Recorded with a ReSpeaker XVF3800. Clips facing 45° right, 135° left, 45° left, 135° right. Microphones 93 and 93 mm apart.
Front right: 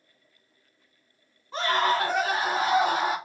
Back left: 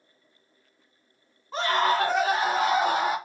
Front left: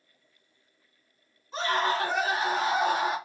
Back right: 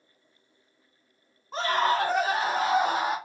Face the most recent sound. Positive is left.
turn(degrees=165)